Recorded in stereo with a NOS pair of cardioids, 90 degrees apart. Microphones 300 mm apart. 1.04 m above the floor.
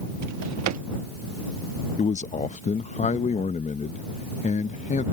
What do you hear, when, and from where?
0.2 s a drawer: 60° right
2.0 s a man speaking: 25° left